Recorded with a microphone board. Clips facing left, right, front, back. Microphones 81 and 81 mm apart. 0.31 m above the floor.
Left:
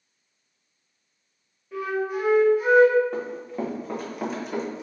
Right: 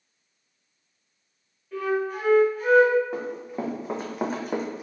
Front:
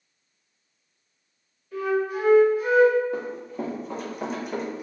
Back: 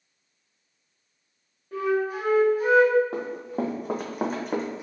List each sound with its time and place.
1.7 s a flute: 165° left, 1.7 m
3.1 s running footsteps: 175° right, 1.3 m; by 4.8 s 115° right, 0.9 m